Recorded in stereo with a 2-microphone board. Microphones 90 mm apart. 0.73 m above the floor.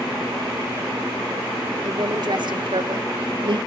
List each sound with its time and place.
1.8 s a woman speaking: 45° right (ahead or behind), 1.9 m; by 3.6 s 60° right (ahead or behind), 1.0 m